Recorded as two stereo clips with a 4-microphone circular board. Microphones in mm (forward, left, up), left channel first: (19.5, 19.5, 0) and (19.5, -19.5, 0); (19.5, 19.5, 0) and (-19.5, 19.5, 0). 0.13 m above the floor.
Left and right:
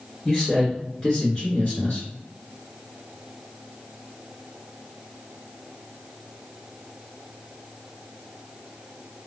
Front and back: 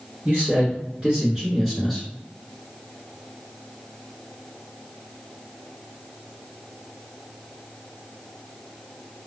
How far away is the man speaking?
About 2.0 m.